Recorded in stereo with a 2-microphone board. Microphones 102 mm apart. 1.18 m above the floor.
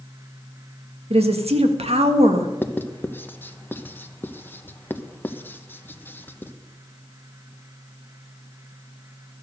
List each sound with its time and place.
1.1 s a woman speaking: 80° right, 1.5 m
2.6 s writing: 20° left (ahead or behind), 0.8 m